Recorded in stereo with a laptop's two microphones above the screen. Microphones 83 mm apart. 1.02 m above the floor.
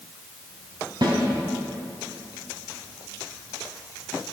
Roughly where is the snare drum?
Right.